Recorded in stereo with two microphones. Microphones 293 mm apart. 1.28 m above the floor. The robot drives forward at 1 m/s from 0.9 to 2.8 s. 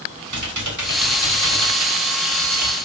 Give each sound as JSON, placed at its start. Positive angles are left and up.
{"t": 0.3, "sound": "typing on a keyboard", "side_deg": -80, "distance_m": 3.5}